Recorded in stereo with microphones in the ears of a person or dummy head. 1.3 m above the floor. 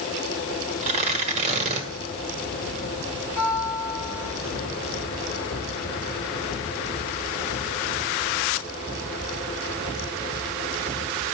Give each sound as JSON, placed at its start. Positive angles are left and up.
{"t": 0.8, "sound": "tearing paper", "side_deg": -40, "distance_m": 1.7}
{"t": 3.4, "sound": "a guitar", "side_deg": -55, "distance_m": 5.5}